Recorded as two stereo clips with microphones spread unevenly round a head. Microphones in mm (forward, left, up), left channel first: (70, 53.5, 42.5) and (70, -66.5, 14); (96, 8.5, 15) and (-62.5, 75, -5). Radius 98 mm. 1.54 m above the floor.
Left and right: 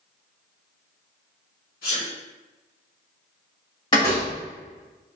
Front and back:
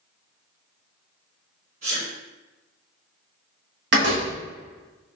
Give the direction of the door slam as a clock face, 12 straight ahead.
7 o'clock.